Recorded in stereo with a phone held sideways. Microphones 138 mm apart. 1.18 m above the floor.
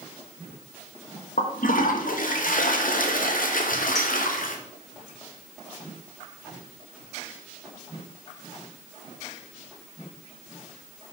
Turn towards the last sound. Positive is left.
turn(degrees=5)  # may be behind; listen again after turning